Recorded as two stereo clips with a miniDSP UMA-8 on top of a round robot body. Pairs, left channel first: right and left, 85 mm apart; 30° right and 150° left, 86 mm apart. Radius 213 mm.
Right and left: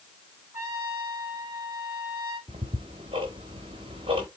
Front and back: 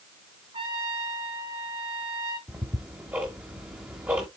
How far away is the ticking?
About 0.8 m.